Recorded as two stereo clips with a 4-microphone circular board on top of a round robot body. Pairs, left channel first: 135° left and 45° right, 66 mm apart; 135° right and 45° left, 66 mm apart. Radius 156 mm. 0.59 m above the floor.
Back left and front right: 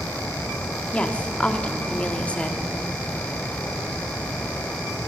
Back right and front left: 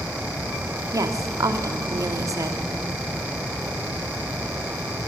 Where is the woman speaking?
65° left, 2 m.